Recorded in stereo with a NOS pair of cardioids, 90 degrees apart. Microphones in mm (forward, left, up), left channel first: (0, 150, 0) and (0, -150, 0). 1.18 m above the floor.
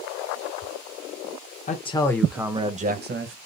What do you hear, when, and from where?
1.7 s a man speaking: 25° left, 1.0 m; by 3.4 s 45° right, 1.1 m